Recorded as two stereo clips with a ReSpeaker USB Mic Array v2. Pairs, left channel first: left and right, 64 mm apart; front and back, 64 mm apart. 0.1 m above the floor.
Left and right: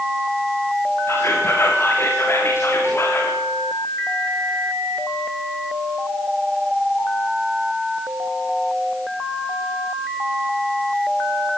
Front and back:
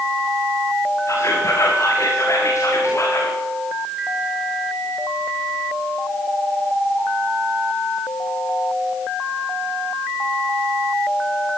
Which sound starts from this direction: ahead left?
Whispering, at 1.1 s.